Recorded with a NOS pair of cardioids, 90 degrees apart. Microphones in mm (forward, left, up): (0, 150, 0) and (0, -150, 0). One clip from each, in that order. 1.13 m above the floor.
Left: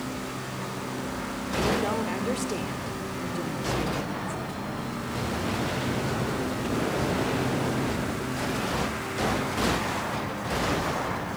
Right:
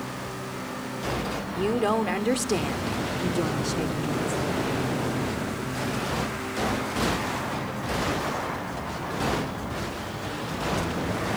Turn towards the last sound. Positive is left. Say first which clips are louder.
# right 2 dB
turn(degrees=-45)